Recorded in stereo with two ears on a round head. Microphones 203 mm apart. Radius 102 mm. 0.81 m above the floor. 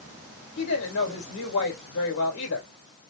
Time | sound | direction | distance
0.6 | a woman speaking | 75° left (ahead or behind) | 3 m